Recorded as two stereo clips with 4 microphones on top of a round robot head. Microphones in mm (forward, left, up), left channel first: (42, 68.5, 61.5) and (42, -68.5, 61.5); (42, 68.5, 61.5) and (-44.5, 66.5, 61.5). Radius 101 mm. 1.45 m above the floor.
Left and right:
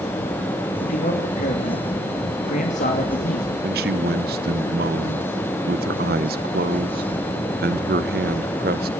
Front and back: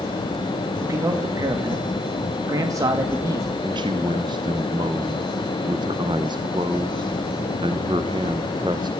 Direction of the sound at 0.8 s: 130° left.